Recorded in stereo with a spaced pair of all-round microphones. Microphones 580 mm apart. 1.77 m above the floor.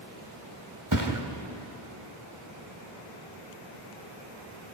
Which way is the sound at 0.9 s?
35° right (ahead or behind).